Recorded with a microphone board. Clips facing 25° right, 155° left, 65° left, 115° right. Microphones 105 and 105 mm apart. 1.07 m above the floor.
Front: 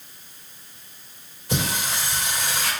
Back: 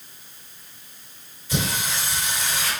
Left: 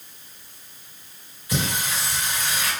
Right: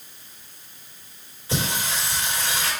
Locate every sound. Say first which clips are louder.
1.5 s singing: even, even; 50° right, 3.5 m